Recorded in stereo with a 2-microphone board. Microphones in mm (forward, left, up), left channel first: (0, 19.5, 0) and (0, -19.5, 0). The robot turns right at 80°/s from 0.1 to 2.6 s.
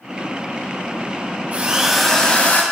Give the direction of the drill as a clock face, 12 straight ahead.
1 o'clock.